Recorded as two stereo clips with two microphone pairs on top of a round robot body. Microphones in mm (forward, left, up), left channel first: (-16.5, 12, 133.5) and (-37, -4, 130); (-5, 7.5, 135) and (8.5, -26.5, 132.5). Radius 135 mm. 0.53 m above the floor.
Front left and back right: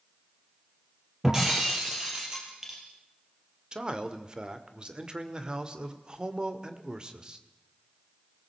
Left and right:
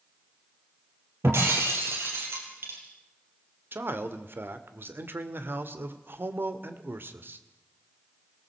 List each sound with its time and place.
1.2 s breaking glass: 65° right, 4 m
3.7 s a man speaking: 85° right, 2.0 m